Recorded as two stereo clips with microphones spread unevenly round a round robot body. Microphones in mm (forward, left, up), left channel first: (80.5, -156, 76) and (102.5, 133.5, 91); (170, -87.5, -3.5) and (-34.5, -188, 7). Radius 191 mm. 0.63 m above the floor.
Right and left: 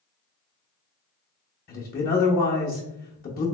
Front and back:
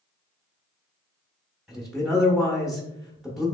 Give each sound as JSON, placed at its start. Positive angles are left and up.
{"t": 1.7, "sound": "a man speaking", "azimuth_deg": -65, "distance_m": 0.8}